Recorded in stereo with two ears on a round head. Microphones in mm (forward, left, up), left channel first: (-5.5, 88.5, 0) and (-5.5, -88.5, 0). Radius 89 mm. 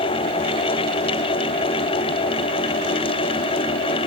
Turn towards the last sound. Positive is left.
No sound to turn to.